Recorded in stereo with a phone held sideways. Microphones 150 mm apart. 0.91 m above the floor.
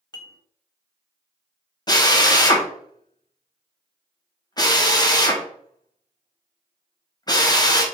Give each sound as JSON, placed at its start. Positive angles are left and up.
{"t": 0.1, "sound": "dishes clattering", "side_deg": 30, "distance_m": 0.7}
{"t": 1.9, "sound": "a drill", "side_deg": 25, "distance_m": 0.7}